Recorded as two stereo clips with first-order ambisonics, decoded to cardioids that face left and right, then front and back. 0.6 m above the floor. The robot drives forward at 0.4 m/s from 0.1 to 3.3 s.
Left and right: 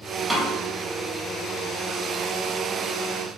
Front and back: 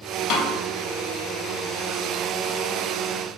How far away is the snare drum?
About 0.6 m.